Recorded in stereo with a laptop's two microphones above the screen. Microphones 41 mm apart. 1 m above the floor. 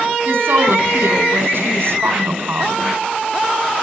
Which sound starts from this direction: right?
A woman speaking, at 0.2 s.